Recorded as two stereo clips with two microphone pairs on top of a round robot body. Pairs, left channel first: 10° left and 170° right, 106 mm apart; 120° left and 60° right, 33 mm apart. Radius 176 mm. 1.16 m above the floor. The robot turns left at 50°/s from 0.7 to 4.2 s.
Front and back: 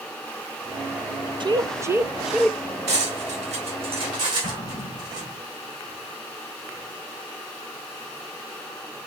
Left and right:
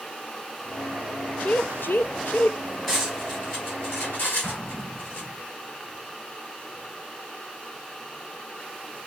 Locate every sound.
1.4 s a woman speaking: 150° left, 0.7 m; by 2.6 s 95° left, 0.7 m
2.9 s cutlery clinking: 155° right, 2.5 m; by 5.3 s 140° left, 2.5 m
4.4 s an explosion: 130° left, 3 m